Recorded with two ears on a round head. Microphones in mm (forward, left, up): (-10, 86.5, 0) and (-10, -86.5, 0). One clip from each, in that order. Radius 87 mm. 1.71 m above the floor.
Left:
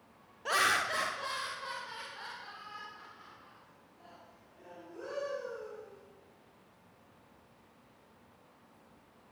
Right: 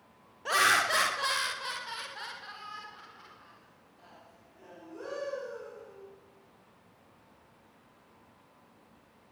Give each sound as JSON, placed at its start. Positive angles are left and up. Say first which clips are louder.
{"t": 0.5, "sound": "laughter", "louder": "right 4 dB", "side_deg": -5, "distance_m": 0.6}